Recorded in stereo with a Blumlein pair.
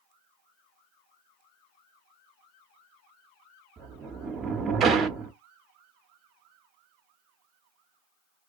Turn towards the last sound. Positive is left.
turn(degrees=-25)